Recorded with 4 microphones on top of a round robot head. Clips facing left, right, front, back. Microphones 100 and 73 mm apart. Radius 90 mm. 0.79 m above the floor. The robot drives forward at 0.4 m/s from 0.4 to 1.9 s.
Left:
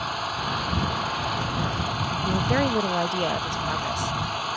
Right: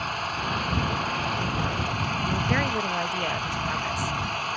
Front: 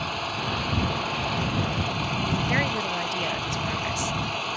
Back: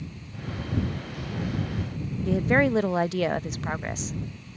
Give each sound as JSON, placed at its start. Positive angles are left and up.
{"t": 0.0, "sound": "an engine running", "azimuth_deg": 10}
{"t": 2.2, "sound": "a woman speaking", "azimuth_deg": 150}